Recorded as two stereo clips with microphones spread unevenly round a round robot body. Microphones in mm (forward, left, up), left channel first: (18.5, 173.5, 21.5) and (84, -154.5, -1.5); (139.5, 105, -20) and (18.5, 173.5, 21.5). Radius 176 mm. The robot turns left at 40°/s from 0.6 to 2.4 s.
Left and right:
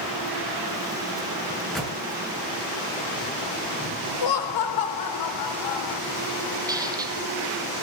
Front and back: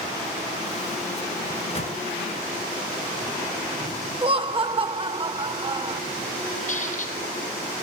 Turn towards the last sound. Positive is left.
turn(degrees=0)